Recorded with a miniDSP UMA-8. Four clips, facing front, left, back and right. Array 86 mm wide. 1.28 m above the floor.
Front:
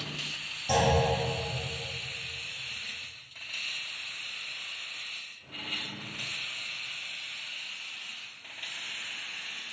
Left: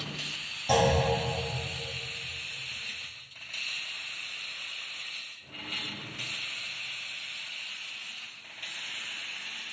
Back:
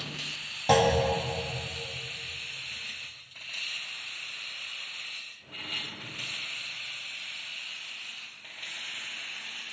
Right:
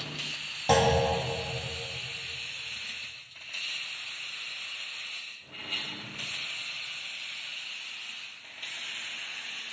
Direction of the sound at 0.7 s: 145° right.